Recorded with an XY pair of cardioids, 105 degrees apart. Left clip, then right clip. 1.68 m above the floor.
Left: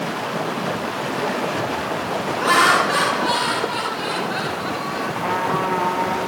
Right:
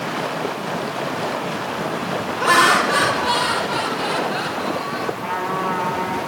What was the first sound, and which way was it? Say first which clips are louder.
Laughter: right 1 dB; straight ahead.